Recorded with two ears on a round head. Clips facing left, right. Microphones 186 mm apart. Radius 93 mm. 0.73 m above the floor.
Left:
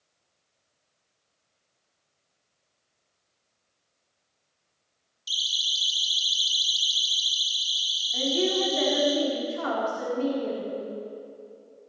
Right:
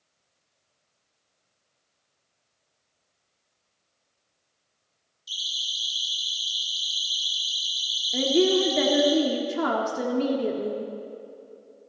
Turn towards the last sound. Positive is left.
turn(degrees=-60)  # may be behind; listen again after turning